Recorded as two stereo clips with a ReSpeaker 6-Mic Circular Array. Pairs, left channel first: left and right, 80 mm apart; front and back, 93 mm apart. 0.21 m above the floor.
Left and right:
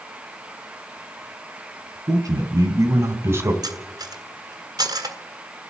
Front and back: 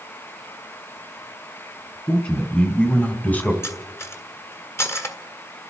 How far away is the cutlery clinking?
About 1.5 m.